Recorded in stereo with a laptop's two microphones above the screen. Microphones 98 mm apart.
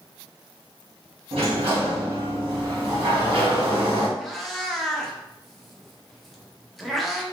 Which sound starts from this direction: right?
A sliding door, at 1.3 s.